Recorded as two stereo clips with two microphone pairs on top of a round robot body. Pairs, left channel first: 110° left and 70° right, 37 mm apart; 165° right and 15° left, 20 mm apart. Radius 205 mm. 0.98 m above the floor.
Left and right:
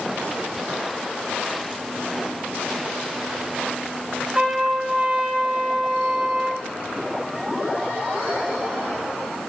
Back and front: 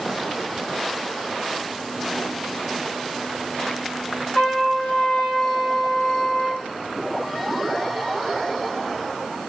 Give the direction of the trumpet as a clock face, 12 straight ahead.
4 o'clock.